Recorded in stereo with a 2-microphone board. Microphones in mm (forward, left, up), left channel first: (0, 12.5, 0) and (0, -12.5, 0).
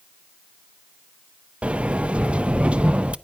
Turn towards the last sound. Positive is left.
turn(degrees=-50)  # may be behind; listen again after turning